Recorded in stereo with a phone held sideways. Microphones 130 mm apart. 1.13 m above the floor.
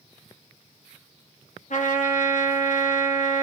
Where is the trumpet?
75° left (ahead or behind), 0.9 m.